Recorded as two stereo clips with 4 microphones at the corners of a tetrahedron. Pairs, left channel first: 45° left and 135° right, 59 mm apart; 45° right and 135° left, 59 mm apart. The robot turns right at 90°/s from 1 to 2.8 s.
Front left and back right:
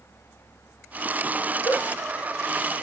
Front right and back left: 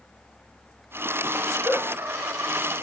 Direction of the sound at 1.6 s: 50° left.